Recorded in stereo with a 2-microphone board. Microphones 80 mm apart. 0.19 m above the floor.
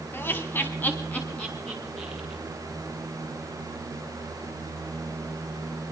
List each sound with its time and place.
0.1 s laughter: 25° left (ahead or behind), 1.3 m; by 2.4 s 10° left (ahead or behind), 3 m